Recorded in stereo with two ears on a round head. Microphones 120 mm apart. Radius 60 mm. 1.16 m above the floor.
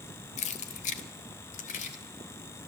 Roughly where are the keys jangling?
Left.